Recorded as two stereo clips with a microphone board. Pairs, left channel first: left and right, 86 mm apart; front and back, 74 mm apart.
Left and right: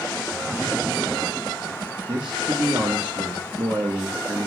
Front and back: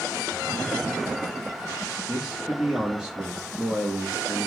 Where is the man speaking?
110° right, 1.0 m.